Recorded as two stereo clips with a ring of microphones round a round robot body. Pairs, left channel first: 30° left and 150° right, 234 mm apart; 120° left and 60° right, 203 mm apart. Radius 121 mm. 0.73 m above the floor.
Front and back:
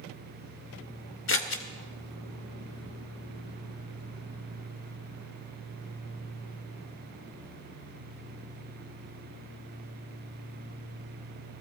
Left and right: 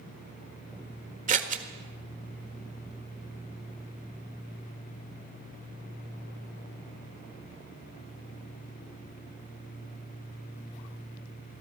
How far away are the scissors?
About 1.5 m.